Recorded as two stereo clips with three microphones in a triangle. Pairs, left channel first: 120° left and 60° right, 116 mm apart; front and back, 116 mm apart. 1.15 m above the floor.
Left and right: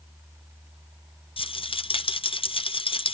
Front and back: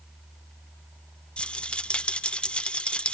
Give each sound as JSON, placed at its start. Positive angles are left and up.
{"t": 1.4, "sound": "a rattle", "azimuth_deg": 80, "distance_m": 0.6}